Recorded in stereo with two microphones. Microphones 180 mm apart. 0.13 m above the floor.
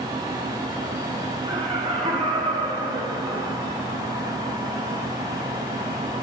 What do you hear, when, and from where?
1.5 s laughter: 30° right (ahead or behind), 4 m; by 3.7 s 25° right (ahead or behind), 2.5 m